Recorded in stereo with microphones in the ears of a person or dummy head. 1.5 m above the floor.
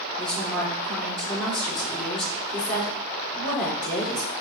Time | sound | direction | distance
0.2 | a woman speaking | 5° left (ahead or behind) | 3.5 m